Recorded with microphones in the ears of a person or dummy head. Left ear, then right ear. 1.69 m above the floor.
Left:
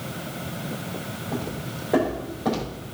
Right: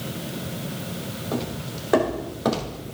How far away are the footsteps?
About 4.5 m.